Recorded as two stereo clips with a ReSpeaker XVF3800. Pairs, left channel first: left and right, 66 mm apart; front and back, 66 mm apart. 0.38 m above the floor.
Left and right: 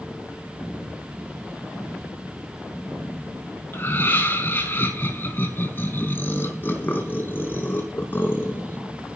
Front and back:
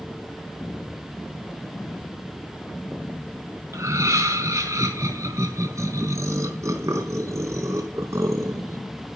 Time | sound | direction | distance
3.7 | laughter | 145° left | 4.5 m